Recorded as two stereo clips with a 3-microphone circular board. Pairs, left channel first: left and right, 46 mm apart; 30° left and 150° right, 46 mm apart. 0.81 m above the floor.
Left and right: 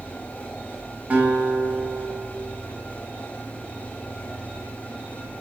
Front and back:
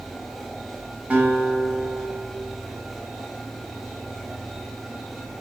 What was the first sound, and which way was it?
A guitar, 115° right.